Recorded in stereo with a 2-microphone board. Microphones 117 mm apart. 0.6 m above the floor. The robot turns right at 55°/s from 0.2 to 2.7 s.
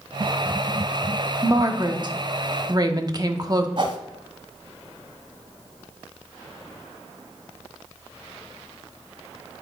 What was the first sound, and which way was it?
A woman speaking, 135° right.